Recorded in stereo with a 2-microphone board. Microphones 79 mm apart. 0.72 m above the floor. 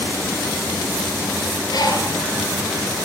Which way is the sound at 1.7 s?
60° left (ahead or behind).